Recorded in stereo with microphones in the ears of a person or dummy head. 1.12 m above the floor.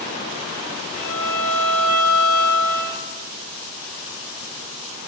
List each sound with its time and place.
0.9 s a violin: 30° right (ahead or behind), 1.1 m